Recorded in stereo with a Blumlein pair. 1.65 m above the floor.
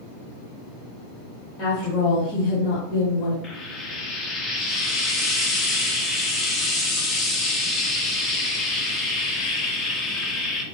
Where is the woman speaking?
30° left, 1.8 m; by 3.3 s 25° left, 2.5 m.